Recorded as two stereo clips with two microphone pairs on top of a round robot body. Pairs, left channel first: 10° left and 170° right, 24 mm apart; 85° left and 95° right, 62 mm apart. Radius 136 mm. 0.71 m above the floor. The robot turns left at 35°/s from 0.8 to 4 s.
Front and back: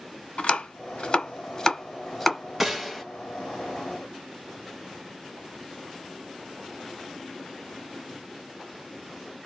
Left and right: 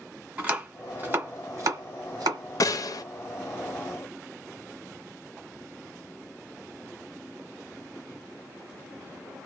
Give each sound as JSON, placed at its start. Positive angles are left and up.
{"t": 0.4, "sound": "chopping", "azimuth_deg": -25, "distance_m": 1.1}
{"t": 2.6, "sound": "a gunshot", "azimuth_deg": 105, "distance_m": 0.8}